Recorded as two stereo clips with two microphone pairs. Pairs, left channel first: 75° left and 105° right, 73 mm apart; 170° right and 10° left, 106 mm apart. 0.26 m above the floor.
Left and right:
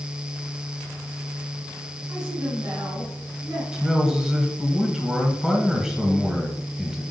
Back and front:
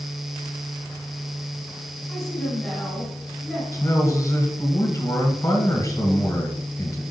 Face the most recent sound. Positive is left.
turn(degrees=180)